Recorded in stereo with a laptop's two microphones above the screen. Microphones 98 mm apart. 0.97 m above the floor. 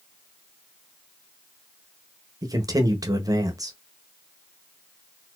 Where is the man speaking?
35° right (ahead or behind), 0.6 m.